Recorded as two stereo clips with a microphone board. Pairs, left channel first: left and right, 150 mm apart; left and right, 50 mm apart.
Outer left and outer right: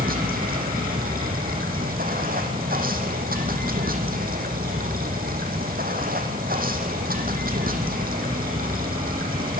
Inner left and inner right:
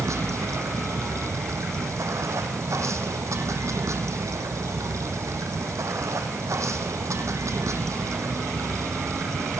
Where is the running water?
75° right (ahead or behind), 3.5 m.